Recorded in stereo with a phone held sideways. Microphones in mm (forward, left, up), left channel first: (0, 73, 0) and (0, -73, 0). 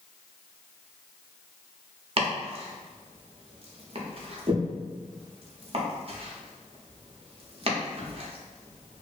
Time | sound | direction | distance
2.2 | chopping | 45° right (ahead or behind) | 0.5 m